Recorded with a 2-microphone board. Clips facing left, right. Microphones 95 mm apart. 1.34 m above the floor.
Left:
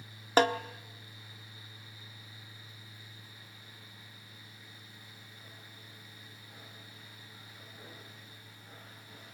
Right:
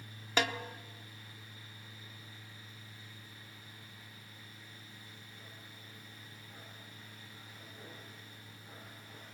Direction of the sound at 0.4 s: 35° left (ahead or behind).